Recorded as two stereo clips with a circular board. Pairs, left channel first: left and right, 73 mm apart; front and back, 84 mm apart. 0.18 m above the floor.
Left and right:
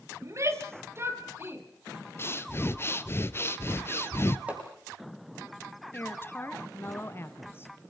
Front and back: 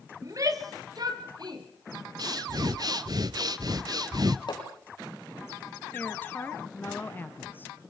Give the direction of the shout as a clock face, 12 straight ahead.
4 o'clock.